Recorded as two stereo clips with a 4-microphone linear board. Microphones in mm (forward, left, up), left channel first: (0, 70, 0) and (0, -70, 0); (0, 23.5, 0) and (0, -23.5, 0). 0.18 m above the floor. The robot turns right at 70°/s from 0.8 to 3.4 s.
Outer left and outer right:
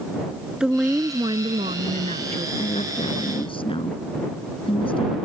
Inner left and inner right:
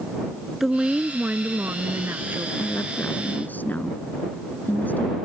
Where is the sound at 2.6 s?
70° left; by 5.2 s 130° left.